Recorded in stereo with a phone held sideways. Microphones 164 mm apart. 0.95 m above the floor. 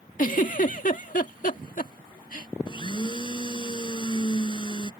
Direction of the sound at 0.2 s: 55° left (ahead or behind).